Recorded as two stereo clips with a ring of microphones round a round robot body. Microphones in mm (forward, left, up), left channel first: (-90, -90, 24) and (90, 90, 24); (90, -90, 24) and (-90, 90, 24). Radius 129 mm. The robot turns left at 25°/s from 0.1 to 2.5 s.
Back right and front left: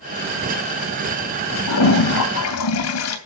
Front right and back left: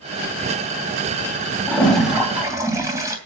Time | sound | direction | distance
1.7 | a toilet flushing | 125° right | 3 m